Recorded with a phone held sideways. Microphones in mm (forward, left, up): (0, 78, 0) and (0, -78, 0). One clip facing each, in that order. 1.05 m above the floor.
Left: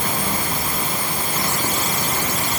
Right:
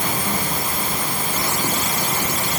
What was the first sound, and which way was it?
Only background noise.